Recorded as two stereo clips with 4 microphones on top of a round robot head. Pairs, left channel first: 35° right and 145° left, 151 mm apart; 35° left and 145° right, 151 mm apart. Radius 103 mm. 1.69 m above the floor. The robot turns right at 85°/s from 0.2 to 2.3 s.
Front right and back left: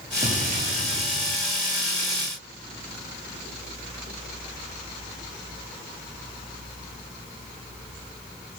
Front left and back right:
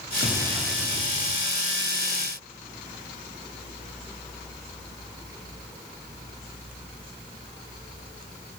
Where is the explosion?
90° left, 5 m; by 1.5 s 160° right, 5 m.